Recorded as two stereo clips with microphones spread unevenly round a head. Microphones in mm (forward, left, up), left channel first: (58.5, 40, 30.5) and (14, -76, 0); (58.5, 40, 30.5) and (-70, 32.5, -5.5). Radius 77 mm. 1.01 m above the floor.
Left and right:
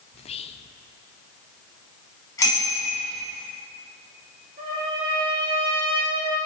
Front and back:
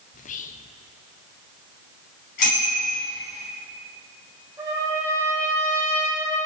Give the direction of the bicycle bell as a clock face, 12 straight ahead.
12 o'clock.